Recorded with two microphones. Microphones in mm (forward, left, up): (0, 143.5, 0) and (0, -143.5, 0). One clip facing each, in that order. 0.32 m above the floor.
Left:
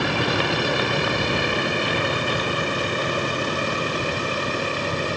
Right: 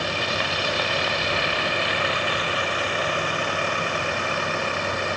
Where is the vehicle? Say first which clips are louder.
Left 6 dB; 65° left (ahead or behind); by 5.2 s 40° left (ahead or behind).